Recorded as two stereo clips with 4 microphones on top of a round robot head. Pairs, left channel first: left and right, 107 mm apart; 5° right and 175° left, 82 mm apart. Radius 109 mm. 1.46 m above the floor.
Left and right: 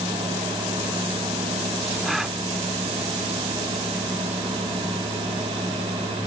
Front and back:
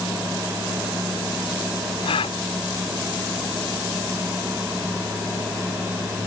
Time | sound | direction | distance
2.0 | a gasp | straight ahead | ?